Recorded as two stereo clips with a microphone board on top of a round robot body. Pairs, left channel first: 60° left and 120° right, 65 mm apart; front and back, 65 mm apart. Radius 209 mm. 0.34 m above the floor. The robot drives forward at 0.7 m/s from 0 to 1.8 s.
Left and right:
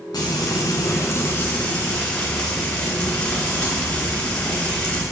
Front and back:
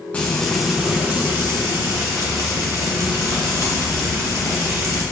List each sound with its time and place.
0.1 s frying: 70° left, 1.0 m; by 5.0 s 135° left, 1.2 m